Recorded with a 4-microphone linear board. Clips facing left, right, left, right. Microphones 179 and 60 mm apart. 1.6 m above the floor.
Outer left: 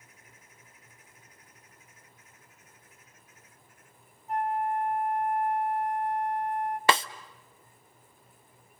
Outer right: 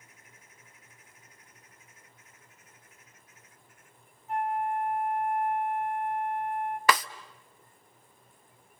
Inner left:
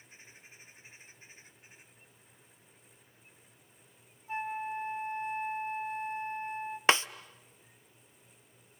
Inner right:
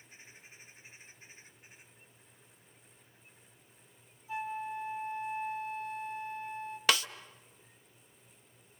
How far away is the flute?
About 1.9 m.